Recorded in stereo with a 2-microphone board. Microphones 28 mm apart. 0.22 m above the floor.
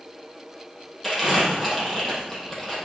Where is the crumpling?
10° left (ahead or behind), 6.5 m.